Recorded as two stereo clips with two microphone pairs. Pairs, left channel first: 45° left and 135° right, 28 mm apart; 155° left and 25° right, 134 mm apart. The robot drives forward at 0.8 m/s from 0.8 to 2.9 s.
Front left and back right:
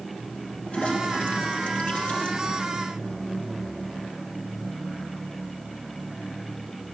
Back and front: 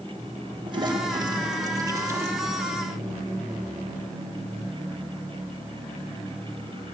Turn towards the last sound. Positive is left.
turn(degrees=55)